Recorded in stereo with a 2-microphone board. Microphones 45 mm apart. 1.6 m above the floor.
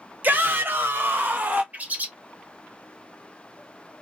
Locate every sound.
0.2 s a shout: 45° right (ahead or behind), 0.8 m; by 1.6 s 40° right (ahead or behind), 1.0 m
1.7 s a bird: 40° right (ahead or behind), 0.6 m